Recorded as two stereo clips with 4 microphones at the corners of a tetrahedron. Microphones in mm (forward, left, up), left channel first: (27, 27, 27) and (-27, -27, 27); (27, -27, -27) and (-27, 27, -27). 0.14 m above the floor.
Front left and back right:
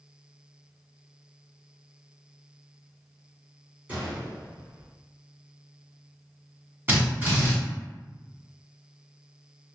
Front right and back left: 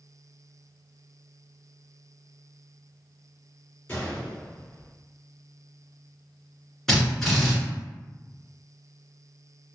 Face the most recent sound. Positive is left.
turn(degrees=-125)